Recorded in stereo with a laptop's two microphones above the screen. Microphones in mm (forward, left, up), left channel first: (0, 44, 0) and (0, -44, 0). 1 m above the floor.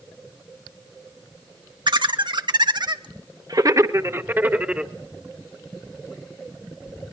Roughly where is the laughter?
Right.